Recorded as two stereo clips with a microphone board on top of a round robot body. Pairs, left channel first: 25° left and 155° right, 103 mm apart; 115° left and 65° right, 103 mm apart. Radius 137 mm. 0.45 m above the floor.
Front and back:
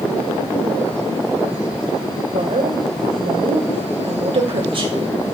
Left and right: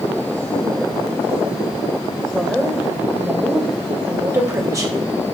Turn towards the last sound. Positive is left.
turn(degrees=-120)